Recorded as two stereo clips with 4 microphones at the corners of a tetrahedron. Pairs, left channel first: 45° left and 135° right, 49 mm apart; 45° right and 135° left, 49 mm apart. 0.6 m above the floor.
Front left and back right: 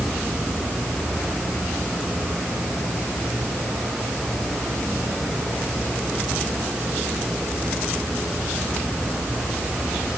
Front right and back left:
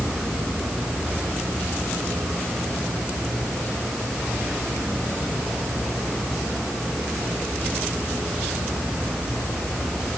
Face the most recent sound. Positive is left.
No sound to turn to.